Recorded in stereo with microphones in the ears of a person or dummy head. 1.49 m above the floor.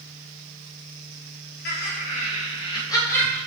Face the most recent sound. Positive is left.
turn(degrees=10)  # may be behind; listen again after turning